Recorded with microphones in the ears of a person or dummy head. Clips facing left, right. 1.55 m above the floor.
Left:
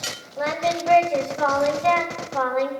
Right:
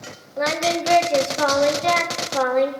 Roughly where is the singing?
Right.